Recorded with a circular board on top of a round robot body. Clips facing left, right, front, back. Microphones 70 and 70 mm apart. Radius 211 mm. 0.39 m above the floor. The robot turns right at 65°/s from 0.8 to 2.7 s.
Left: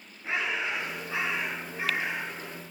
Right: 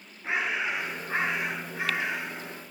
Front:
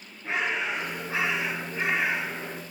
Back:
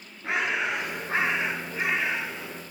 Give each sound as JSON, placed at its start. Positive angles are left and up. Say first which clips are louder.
{"t": 0.2, "sound": "a bird", "louder": "right 1 dB, back 1 dB", "azimuth_deg": -160, "distance_m": 7.0}